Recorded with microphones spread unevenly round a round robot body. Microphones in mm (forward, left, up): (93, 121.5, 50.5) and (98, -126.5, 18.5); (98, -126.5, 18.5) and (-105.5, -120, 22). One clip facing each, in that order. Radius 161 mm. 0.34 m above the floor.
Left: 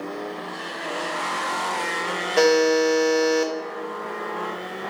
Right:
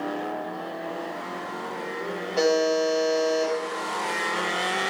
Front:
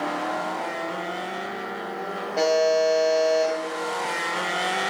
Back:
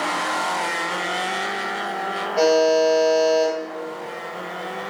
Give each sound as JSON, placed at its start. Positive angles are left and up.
{"t": 2.4, "sound": "a buzzer", "azimuth_deg": 80, "distance_m": 0.8}